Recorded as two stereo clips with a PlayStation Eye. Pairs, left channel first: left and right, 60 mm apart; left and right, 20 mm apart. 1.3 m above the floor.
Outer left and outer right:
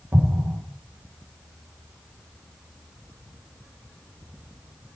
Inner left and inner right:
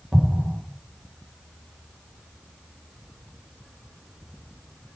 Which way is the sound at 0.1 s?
35° right (ahead or behind).